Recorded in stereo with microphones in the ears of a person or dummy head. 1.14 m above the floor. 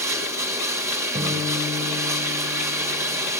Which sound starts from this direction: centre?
Running water, at 0.0 s.